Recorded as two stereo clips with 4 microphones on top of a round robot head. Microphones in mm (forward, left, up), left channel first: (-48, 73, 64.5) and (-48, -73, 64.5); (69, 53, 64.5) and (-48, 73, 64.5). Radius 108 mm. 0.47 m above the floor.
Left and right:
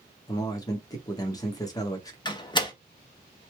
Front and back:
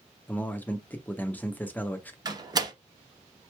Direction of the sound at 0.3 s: 55° left.